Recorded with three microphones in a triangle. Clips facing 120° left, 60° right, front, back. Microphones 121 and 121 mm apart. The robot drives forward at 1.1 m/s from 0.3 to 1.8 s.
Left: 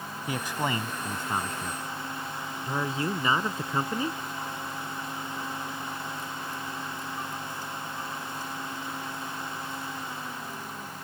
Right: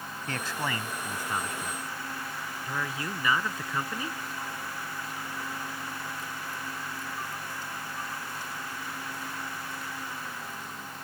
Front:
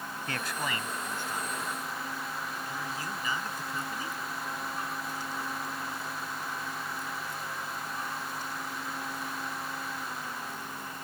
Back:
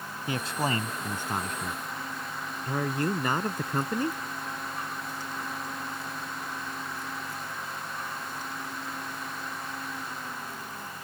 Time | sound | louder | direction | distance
0.3 | a man speaking | left 3 dB, back 6 dB | 160° left | ?